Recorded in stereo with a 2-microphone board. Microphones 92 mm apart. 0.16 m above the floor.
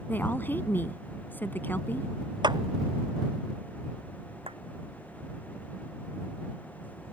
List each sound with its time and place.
0.1 s a woman speaking: 20° left (ahead or behind)
2.4 s a clap: 50° right (ahead or behind)
4.5 s a clap: 85° right